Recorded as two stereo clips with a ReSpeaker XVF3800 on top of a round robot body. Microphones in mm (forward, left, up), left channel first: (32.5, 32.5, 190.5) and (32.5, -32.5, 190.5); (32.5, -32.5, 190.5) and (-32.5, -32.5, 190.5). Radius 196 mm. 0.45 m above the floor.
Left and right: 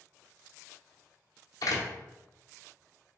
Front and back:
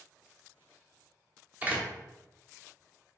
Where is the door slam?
110° left, 1.1 m.